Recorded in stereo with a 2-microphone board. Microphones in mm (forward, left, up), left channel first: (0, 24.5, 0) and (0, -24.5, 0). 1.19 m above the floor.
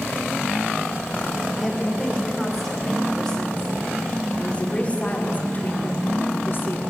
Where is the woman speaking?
Centre (ahead or behind), 5.5 m; by 6.8 s 55° left (ahead or behind), 4 m.